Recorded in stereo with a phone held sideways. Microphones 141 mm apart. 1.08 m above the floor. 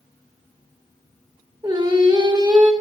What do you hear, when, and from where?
1.6 s singing: 30° right (ahead or behind), 0.8 m